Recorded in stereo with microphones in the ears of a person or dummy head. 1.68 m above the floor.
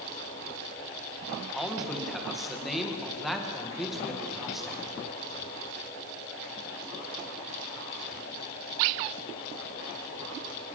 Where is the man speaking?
5° left (ahead or behind), 2 m.